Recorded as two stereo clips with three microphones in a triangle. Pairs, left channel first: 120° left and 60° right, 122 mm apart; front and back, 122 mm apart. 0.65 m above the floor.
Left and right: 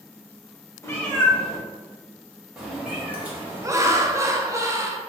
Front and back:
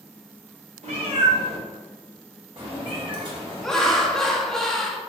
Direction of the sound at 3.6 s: 80° right.